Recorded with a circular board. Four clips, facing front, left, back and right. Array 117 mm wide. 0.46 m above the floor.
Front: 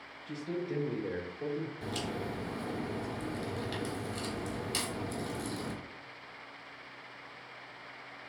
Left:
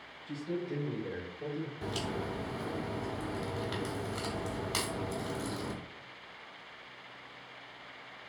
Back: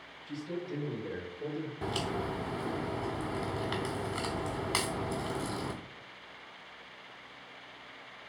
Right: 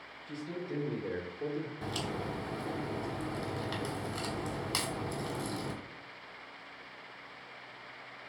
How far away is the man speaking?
About 1.7 m.